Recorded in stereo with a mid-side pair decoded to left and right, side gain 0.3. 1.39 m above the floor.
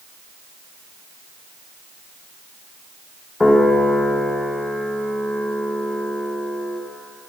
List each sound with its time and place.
3.4 s a piano: 35° left, 1.5 m